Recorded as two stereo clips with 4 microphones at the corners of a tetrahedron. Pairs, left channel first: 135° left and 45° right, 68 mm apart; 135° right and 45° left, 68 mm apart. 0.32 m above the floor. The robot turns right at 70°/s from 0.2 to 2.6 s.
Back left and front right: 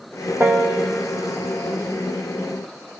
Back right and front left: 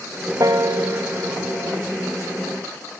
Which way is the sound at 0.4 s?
10° left.